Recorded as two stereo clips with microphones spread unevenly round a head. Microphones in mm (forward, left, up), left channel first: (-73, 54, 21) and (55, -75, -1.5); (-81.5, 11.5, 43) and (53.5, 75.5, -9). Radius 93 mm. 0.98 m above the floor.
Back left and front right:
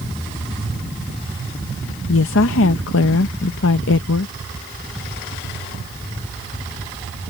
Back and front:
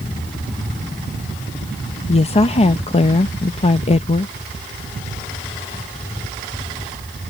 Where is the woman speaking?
150° left.